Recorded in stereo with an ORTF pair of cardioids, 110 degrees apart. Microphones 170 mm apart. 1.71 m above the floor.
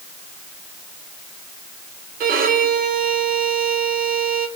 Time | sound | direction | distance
2.2 | a violin | 65° right | 4 m